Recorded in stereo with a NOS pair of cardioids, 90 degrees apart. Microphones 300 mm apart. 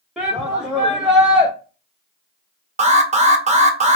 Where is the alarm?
20° right, 0.9 m.